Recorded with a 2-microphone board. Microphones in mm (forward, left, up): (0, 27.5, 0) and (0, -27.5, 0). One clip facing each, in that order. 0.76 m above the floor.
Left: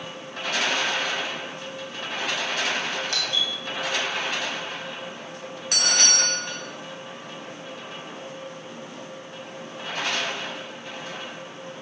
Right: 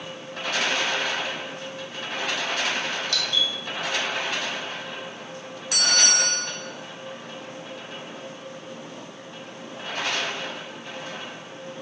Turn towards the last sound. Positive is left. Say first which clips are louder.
# right 1 dB
turn(degrees=55)  # may be behind; listen again after turning